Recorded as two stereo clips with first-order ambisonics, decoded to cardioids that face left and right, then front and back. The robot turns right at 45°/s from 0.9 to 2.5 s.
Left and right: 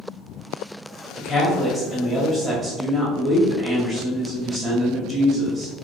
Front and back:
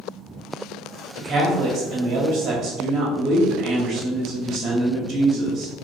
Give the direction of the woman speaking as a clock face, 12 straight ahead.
7 o'clock.